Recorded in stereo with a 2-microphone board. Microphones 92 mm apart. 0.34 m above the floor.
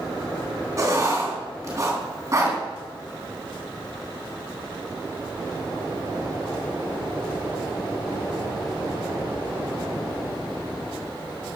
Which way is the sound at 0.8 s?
35° right (ahead or behind).